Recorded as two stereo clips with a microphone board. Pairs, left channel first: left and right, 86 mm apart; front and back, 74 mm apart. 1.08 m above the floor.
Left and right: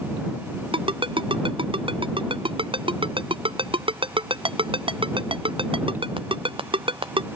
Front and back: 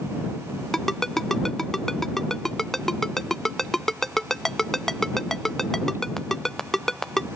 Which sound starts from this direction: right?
A ringtone, at 0.7 s.